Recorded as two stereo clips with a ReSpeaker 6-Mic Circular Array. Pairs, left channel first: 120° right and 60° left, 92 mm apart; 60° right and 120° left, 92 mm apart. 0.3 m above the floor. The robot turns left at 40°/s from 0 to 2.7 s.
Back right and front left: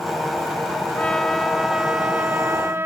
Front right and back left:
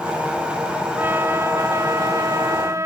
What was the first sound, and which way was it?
A trumpet, 170° left.